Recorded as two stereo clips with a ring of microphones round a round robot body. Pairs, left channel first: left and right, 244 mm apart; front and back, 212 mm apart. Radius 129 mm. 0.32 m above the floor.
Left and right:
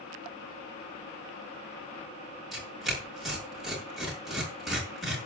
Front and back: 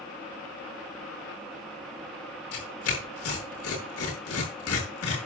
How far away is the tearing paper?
About 6.5 m.